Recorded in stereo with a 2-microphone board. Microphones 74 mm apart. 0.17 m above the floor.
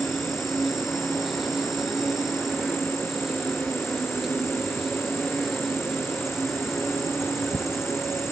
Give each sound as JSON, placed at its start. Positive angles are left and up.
{"t": 0.0, "sound": "an insect", "side_deg": -5, "distance_m": 1.2}